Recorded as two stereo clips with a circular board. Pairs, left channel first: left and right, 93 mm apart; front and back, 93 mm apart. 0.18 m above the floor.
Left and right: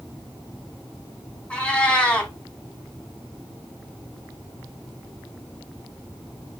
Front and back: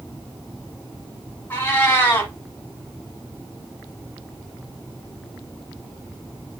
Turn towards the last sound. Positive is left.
turn(degrees=30)